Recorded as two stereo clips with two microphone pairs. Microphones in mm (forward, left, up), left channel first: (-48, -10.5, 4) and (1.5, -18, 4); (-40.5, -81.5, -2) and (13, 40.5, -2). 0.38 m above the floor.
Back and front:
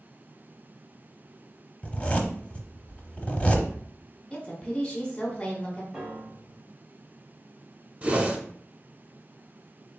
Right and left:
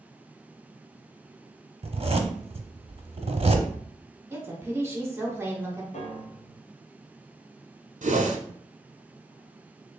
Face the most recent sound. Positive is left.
turn(degrees=55)